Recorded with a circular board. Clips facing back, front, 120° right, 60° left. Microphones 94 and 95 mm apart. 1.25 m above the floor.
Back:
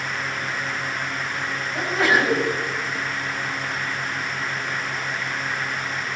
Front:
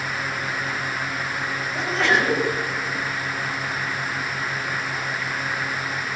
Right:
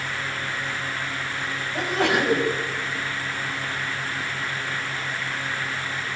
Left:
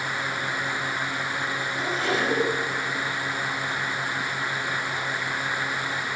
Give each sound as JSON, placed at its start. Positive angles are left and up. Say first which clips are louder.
{"t": 1.7, "sound": "a sneeze", "louder": "back 1 dB, right 5 dB", "azimuth_deg": -100, "distance_m": 7.0}